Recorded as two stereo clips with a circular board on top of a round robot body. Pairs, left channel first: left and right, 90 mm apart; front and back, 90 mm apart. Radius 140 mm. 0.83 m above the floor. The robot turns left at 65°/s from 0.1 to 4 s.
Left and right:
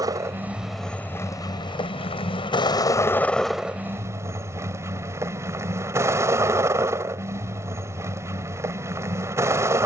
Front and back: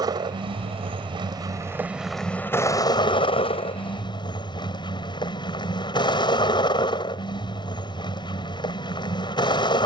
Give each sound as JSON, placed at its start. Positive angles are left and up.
{"t": 0.0, "sound": "a vehicle", "azimuth_deg": -140}